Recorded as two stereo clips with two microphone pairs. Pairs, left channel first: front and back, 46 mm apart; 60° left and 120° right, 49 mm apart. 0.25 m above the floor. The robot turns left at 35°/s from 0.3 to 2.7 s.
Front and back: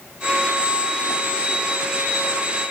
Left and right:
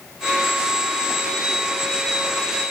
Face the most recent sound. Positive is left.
No sound to turn to.